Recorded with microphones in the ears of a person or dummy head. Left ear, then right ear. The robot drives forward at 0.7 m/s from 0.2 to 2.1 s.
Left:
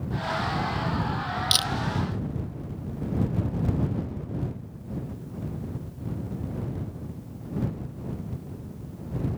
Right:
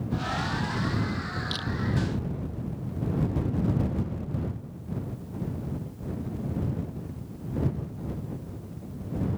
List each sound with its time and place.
1.5 s a camera shutter: 55° left (ahead or behind)